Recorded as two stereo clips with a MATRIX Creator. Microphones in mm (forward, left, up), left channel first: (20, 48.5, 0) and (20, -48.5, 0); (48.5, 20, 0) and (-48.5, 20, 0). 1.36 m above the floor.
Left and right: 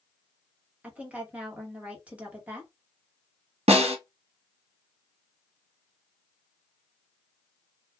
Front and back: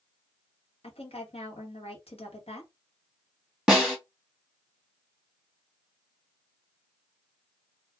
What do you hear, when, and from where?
0.8 s a woman speaking: 15° right, 1.1 m
3.7 s a snare drum: 95° right, 0.9 m